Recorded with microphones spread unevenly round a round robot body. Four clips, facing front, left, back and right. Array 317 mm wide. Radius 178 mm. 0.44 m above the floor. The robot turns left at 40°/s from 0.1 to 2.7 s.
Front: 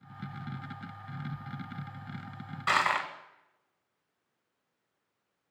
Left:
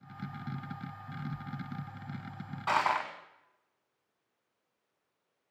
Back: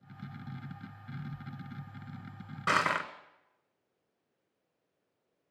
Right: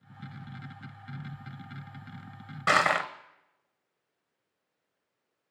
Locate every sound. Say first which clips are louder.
2.7 s crushing: right 4 dB, front 1 dB; 135° right, 1.0 m